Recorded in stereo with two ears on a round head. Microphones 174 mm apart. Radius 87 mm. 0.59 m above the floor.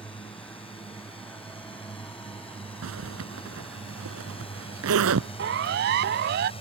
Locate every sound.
0.0 s a drone: 30° left (ahead or behind)
2.8 s a zipper: 85° right
5.4 s a siren: 60° right (ahead or behind); by 6.5 s 55° right (ahead or behind)